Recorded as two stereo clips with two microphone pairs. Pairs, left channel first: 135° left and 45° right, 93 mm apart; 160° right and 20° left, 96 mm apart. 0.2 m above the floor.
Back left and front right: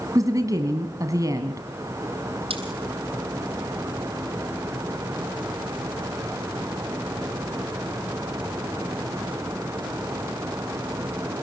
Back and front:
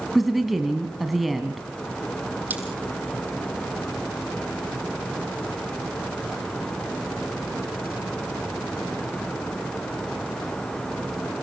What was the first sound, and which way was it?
A woman speaking, 70° right.